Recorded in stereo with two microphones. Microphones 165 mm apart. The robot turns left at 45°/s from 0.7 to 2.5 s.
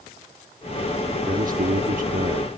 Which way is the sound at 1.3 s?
70° right.